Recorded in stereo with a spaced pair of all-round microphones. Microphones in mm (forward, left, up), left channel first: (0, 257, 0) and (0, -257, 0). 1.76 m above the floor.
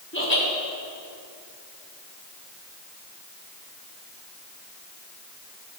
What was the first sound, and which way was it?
Laughter, 25° left (ahead or behind).